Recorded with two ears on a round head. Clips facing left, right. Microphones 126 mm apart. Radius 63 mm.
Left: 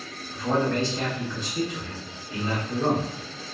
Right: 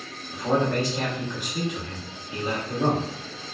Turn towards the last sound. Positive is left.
turn(degrees=-10)  # may be behind; listen again after turning